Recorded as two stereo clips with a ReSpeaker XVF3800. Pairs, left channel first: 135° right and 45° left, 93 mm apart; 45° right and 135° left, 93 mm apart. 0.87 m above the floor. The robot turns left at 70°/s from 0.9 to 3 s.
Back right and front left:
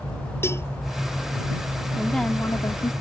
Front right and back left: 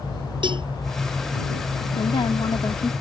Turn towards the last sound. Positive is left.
turn(degrees=-115)